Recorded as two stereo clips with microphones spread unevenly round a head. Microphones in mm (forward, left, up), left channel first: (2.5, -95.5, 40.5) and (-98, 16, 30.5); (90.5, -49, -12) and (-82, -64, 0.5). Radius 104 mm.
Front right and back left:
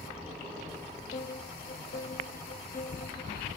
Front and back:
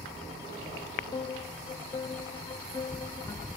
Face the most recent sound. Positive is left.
turn(degrees=-60)